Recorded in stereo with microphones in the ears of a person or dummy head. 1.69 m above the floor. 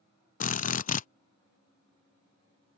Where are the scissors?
I don't hear scissors.